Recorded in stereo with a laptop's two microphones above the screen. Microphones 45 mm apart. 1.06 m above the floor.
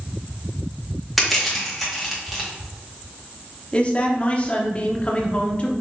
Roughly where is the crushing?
Centre.